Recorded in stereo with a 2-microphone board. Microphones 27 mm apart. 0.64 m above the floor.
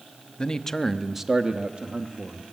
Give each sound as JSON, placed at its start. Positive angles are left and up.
{"t": 0.4, "sound": "a man speaking", "side_deg": 25, "distance_m": 0.9}